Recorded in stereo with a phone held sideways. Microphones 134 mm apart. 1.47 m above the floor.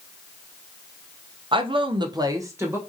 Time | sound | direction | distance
1.5 | a woman speaking | 40° right (ahead or behind) | 0.5 m